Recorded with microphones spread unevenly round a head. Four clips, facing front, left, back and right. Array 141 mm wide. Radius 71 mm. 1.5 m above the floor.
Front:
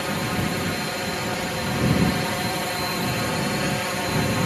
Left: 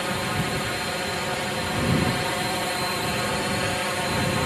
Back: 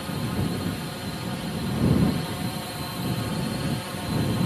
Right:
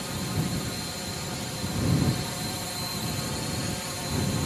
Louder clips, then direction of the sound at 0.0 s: Left 5 dB, front 4 dB; 35° left.